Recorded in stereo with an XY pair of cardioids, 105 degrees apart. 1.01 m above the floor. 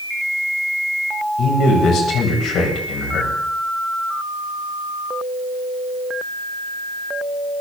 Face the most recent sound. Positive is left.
turn(degrees=70)